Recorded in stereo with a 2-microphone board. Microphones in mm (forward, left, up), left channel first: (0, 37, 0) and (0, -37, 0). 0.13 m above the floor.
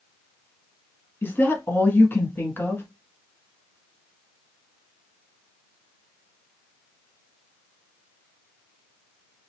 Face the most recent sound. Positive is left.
turn(degrees=30)  # may be behind; listen again after turning